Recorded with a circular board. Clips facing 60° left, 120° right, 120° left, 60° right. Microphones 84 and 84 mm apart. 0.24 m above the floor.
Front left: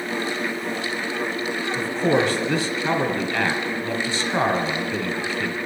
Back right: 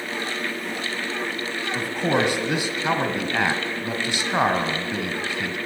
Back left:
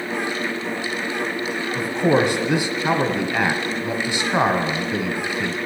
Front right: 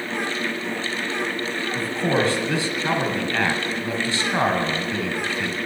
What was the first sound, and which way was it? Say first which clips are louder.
A man speaking: front left 2 dB, back left 4 dB; straight behind.